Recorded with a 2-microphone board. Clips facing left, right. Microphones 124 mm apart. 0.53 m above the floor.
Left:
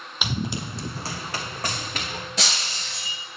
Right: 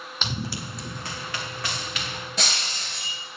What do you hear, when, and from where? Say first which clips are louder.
0.2 s running footsteps: left 4 dB; 10° left (ahead or behind), 0.7 m; by 2.3 s 45° left (ahead or behind), 2 m
2.4 s breaking glass: right 2 dB; centre (ahead or behind), 2.5 m